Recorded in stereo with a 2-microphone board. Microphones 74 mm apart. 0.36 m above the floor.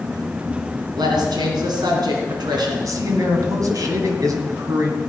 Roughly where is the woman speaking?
Right.